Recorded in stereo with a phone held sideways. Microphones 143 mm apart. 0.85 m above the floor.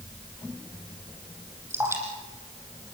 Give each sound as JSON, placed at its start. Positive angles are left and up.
{"t": 1.7, "sound": "dripping", "side_deg": -15, "distance_m": 6.5}